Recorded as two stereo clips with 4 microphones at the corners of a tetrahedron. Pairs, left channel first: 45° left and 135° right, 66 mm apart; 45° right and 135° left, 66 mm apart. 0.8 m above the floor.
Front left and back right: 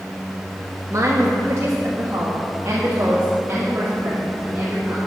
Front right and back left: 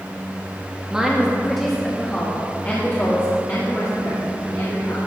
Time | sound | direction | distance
0.9 | a woman speaking | 150° right | 1.2 m